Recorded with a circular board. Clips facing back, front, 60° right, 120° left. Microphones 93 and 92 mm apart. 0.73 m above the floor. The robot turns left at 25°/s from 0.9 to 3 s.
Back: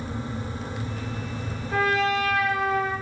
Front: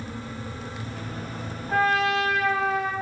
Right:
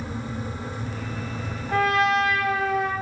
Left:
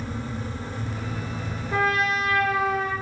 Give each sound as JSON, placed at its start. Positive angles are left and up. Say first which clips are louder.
{"t": 1.7, "sound": "a trumpet", "louder": "front 1 dB, right 3 dB", "azimuth_deg": -45, "distance_m": 1.8}